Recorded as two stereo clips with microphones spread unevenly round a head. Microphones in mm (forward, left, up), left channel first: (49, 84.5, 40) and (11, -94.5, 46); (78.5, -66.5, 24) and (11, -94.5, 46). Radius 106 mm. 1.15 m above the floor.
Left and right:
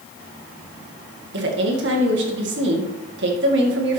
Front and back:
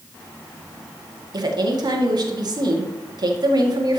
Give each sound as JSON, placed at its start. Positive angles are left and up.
{"t": 1.3, "sound": "a woman speaking", "azimuth_deg": -135, "distance_m": 2.0}